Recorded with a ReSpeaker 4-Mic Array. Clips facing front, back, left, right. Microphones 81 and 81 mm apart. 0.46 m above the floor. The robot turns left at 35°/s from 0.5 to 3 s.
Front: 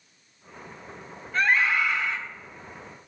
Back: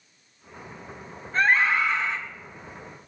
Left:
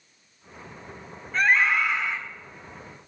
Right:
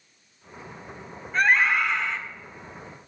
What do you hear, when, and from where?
1.3 s a scream: 170° right, 1.2 m; by 2.2 s 160° left, 1.2 m